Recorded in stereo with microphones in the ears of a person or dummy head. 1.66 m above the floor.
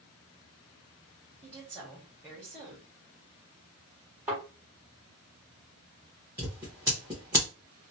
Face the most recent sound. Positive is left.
turn(degrees=-10)  # may be behind; listen again after turning